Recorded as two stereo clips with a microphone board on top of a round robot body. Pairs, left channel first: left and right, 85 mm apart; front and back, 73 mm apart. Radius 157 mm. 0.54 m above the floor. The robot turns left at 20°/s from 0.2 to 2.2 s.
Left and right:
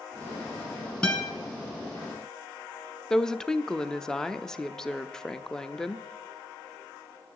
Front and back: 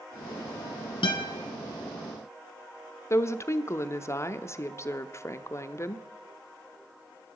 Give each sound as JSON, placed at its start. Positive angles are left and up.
{"t": 1.0, "sound": "a guitar", "azimuth_deg": 15, "distance_m": 1.1}
{"t": 3.1, "sound": "a woman speaking", "azimuth_deg": 10, "distance_m": 0.7}